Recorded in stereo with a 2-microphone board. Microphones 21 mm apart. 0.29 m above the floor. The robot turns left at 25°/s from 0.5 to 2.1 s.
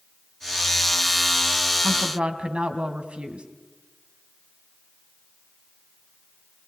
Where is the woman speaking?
60° right (ahead or behind), 2.5 m.